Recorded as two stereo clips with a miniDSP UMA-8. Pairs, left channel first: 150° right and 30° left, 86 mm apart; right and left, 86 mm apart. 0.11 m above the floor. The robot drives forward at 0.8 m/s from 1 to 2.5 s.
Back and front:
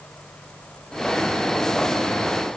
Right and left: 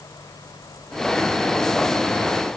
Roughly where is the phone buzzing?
No phone buzzing in this recording.